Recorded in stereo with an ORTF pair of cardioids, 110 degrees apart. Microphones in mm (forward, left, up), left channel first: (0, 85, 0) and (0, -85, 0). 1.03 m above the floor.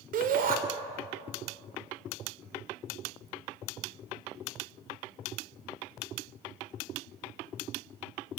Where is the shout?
55° right, 4 m.